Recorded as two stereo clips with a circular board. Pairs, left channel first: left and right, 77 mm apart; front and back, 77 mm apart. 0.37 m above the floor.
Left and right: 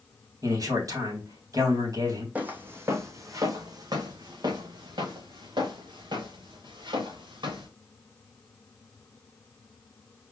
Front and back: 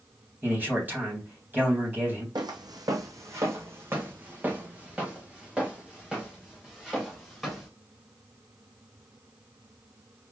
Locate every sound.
0.4 s a man speaking: 120° right, 3 m
2.4 s footsteps: 160° right, 1.1 m; by 7.7 s 90° right, 3.5 m